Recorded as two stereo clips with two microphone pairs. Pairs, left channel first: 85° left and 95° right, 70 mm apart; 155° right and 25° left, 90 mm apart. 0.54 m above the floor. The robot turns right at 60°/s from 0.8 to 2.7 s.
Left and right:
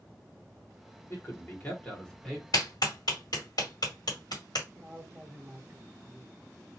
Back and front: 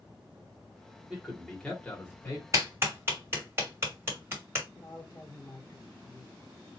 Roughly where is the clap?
Left.